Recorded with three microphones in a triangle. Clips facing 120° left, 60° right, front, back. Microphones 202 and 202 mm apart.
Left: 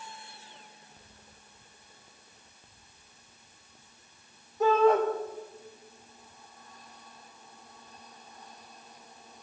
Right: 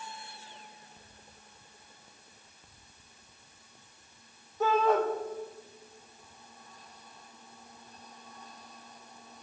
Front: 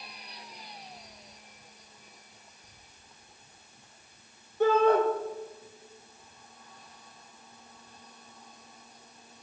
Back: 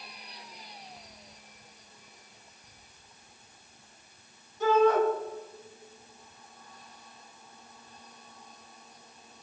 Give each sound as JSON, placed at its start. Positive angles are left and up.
{"t": 4.6, "sound": "a shout", "azimuth_deg": 30, "distance_m": 5.5}